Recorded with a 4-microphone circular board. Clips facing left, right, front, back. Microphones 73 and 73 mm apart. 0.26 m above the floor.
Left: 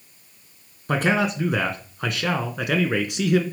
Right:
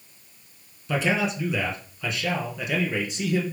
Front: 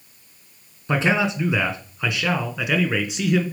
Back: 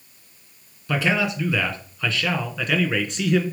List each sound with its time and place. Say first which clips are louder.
0.9 s a man speaking: left 3 dB, front 2 dB; 60° left, 2.5 m; by 3.4 s 85° left, 3 m